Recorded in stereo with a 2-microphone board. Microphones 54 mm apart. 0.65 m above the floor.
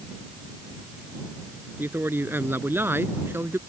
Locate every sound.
1.8 s a man speaking: 45° right (ahead or behind); by 3.6 s 50° right (ahead or behind)